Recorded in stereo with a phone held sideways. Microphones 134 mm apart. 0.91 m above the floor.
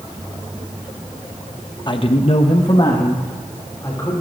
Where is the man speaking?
35° left (ahead or behind), 1.0 m; by 4.2 s 20° left (ahead or behind), 3.5 m.